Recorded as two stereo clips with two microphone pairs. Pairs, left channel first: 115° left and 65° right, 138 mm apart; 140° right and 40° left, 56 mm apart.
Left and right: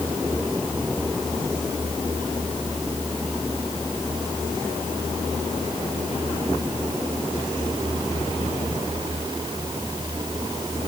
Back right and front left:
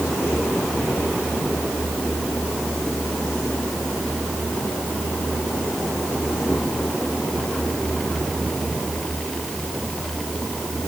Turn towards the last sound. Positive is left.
No sound to turn to.